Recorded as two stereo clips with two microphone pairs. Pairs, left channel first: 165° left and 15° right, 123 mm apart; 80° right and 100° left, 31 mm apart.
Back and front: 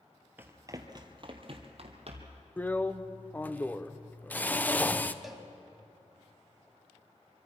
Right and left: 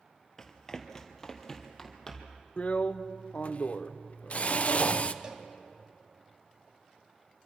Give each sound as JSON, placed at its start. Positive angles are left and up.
{"t": 0.4, "sound": "running footsteps", "azimuth_deg": -55, "distance_m": 1.7}
{"t": 2.6, "sound": "a drill", "azimuth_deg": -120, "distance_m": 0.7}
{"t": 5.2, "sound": "a cowbell", "azimuth_deg": 70, "distance_m": 1.6}